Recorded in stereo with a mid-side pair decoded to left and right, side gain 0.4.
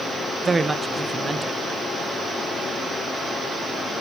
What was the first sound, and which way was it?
A woman speaking, 30° right.